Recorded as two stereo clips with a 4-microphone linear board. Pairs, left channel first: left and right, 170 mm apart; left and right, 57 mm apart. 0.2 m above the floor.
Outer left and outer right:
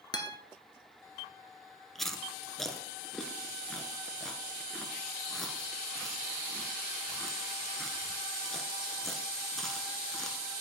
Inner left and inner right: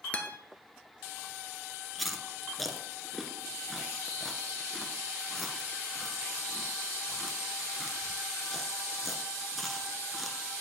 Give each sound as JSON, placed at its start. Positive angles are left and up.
{"t": 0.1, "sound": "a guitar", "side_deg": 25, "distance_m": 1.1}
{"t": 1.9, "sound": "chewing", "side_deg": 0, "distance_m": 1.0}